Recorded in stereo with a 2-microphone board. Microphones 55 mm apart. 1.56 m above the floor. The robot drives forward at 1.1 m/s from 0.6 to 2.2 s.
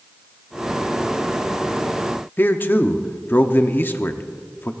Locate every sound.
2.4 s a man speaking: 40° left (ahead or behind), 0.7 m